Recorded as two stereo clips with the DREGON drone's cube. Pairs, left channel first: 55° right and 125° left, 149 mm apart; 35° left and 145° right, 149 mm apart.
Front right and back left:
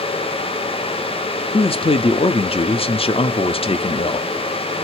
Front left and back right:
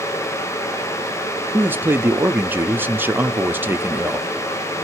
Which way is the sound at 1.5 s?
75° right.